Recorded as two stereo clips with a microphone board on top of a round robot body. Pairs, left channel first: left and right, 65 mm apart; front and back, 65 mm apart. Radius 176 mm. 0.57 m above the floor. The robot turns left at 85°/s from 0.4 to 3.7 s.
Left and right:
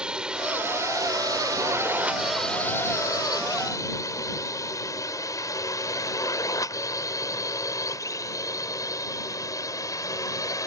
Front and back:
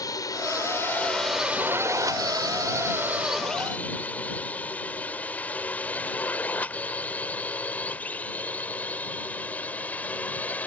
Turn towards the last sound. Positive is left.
turn(degrees=65)